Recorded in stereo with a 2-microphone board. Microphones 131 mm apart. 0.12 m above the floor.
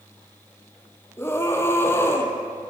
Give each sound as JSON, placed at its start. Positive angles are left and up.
{"t": 1.2, "sound": "a scream", "side_deg": 20, "distance_m": 3.0}